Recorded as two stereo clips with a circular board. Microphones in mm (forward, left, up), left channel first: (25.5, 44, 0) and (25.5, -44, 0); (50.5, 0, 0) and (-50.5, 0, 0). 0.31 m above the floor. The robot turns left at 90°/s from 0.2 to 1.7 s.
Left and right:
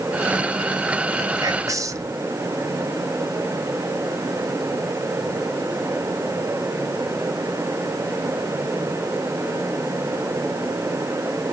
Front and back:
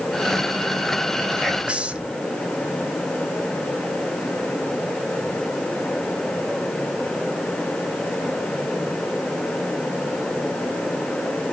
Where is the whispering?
80° right, 1.2 m; by 2.1 s 110° right, 1.2 m.